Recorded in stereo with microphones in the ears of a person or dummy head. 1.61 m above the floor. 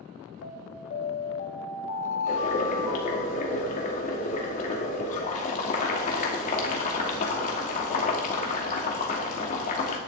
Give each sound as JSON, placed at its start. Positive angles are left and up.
{"t": 0.4, "sound": "an alarm", "side_deg": 45, "distance_m": 1.2}
{"t": 2.3, "sound": "boiling", "side_deg": 45, "distance_m": 2.5}